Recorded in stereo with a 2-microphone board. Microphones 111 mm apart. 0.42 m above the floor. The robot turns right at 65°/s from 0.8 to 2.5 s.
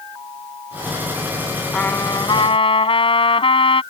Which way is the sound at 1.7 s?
10° left.